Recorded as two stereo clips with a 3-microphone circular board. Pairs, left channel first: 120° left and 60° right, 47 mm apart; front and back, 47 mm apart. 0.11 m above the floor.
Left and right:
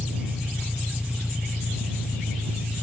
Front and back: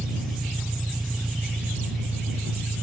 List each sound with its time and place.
0.0 s an engine running: 135° right